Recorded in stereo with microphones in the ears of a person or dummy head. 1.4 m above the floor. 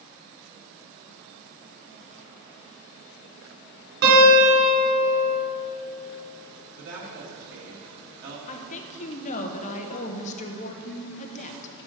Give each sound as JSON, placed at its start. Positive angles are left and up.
{"t": 4.0, "sound": "a guitar", "side_deg": -60, "distance_m": 3.0}
{"t": 6.8, "sound": "a woman speaking", "side_deg": -70, "distance_m": 2.0}
{"t": 8.5, "sound": "a woman speaking", "side_deg": 40, "distance_m": 0.8}